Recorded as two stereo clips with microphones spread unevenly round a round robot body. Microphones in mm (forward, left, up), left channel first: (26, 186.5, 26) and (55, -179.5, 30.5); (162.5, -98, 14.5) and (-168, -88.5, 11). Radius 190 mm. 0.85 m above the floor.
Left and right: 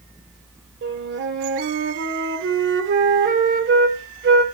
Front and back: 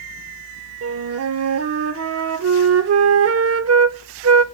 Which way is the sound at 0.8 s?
140° right.